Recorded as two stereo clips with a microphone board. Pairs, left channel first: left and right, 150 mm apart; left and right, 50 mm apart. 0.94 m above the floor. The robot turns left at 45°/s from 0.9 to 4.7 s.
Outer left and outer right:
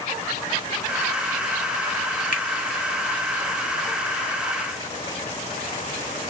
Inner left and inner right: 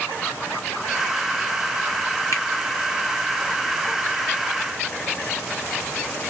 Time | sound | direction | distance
2.3 | a finger snap | 65° left (ahead or behind) | 1.8 m